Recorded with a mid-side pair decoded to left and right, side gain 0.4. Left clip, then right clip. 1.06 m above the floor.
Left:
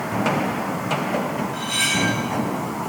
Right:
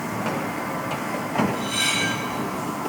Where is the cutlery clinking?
45° left, 3 m.